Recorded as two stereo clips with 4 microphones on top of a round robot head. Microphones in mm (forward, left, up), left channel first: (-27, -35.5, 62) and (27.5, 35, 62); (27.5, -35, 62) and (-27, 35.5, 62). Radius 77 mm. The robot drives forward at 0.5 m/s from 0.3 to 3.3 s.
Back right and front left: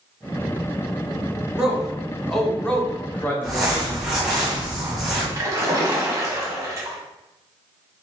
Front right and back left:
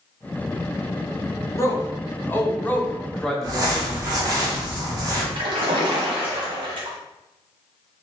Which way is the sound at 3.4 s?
135° left.